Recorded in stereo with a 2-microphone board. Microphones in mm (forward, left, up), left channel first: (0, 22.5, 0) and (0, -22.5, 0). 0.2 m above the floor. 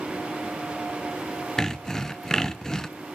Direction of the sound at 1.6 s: 10° left (ahead or behind).